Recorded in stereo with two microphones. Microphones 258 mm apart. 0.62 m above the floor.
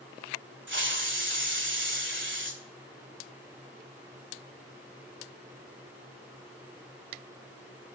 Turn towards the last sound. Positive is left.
turn(degrees=-45)  # may be behind; listen again after turning